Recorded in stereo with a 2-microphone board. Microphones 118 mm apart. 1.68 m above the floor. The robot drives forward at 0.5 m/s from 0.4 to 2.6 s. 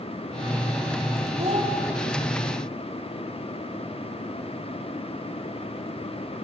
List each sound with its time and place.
1.4 s a child speaking: 65° right (ahead or behind), 2 m